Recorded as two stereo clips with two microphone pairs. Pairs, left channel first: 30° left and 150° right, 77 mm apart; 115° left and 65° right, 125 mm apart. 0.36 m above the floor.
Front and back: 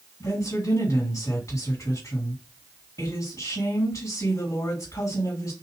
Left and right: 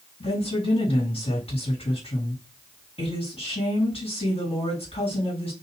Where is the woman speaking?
75° left, 3.5 m.